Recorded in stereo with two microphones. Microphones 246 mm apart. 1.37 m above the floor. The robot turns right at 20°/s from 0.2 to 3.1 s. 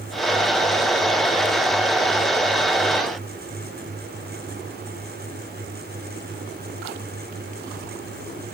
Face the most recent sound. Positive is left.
No sound to turn to.